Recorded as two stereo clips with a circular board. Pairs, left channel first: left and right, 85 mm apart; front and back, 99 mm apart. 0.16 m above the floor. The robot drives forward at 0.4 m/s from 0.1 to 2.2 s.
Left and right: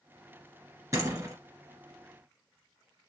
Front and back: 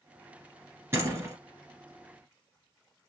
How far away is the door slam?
About 1.7 m.